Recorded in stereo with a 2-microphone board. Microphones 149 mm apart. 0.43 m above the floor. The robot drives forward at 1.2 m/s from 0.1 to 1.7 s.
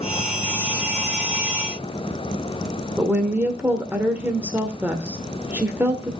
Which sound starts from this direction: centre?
A woman speaking, at 3.0 s.